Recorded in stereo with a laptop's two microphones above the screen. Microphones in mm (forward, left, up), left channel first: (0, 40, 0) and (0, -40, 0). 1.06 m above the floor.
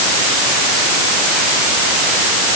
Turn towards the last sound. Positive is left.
No sound to turn to.